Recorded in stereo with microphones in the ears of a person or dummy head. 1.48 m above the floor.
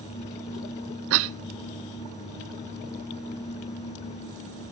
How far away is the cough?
About 0.7 m.